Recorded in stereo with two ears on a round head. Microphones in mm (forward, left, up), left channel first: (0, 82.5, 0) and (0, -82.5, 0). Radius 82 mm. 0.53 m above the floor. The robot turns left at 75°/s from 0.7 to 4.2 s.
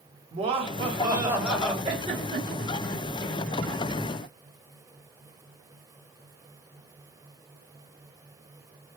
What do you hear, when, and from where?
0.3 s laughter: 115° right, 0.9 m; by 1.7 s 170° left, 0.9 m
1.8 s a giggle: 30° right (ahead or behind), 1.4 m; by 2.7 s 15° left (ahead or behind), 1.4 m